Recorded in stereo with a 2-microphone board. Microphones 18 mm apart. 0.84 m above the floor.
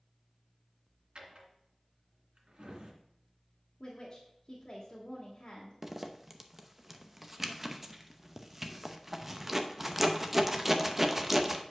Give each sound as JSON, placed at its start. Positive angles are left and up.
{"t": 1.1, "sound": "a drawer", "side_deg": -75, "distance_m": 2.5}
{"t": 3.8, "sound": "a woman speaking", "side_deg": 40, "distance_m": 2.0}
{"t": 5.8, "sound": "a zipper", "side_deg": -10, "distance_m": 0.8}